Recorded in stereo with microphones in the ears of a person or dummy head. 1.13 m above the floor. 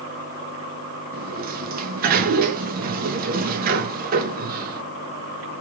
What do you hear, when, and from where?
1.1 s a sliding door: 45° right (ahead or behind), 0.7 m